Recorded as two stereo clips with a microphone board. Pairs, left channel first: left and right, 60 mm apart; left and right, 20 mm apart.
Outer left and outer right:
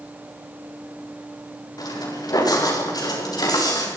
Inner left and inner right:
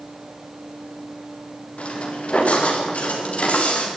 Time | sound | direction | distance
1.8 | footsteps | 90° left | 8 m